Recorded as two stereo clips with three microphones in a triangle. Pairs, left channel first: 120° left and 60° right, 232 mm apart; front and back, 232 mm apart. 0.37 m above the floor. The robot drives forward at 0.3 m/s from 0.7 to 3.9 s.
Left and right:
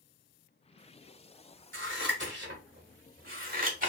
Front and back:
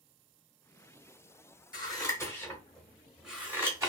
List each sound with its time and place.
1.7 s scissors: 70° right, 1.2 m; by 3.9 s 105° right, 1.2 m